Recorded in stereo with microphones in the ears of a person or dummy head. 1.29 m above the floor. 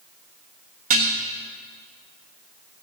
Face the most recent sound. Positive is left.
turn(degrees=-45)  # may be behind; listen again after turning